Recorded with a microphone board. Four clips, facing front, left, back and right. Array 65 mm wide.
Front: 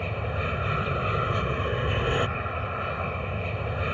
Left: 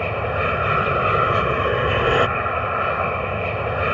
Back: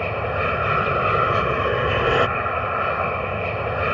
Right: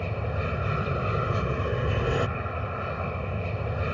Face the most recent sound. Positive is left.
turn(degrees=135)